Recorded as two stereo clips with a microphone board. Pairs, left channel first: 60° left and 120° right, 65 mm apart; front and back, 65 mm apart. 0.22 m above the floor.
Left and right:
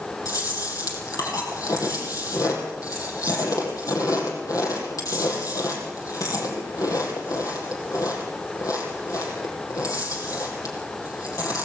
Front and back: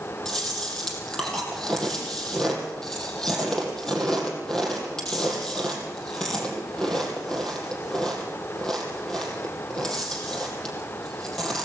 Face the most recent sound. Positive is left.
turn(degrees=80)